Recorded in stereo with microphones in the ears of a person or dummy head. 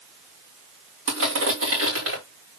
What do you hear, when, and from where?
1.1 s crushing: 80° right, 3.5 m